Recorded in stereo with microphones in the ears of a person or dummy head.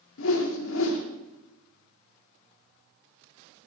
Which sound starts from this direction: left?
A whoosh, at 0.2 s.